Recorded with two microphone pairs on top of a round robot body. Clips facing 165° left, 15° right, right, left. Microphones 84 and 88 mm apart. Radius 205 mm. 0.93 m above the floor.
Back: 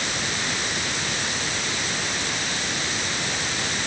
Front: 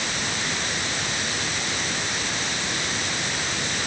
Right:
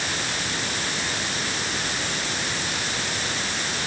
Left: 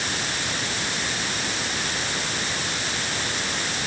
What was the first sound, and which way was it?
Only background noise.